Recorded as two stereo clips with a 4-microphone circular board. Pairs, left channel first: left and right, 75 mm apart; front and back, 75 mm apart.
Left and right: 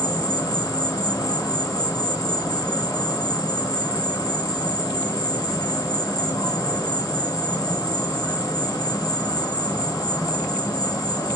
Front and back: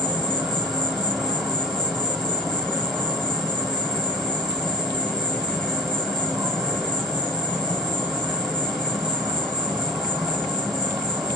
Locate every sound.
0.0 s an insect: 95° left, 1.6 m